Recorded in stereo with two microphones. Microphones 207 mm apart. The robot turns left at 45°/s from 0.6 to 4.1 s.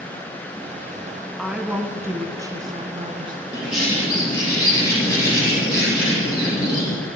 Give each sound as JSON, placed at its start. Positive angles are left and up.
{"t": 1.4, "sound": "a woman speaking", "side_deg": 0, "distance_m": 1.2}
{"t": 3.5, "sound": "a bird", "side_deg": -10, "distance_m": 4.5}